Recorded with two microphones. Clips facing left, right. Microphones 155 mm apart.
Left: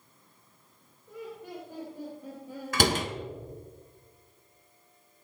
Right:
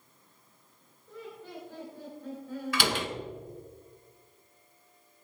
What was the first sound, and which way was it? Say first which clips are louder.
Laughter: left 3 dB; 15° left (ahead or behind).